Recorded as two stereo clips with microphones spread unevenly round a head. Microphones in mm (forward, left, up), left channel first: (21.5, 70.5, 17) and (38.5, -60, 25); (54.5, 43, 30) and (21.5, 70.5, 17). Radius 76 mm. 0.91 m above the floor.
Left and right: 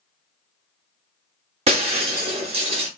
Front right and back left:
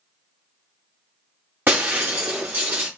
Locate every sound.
1.7 s breaking glass: 135° right, 0.9 m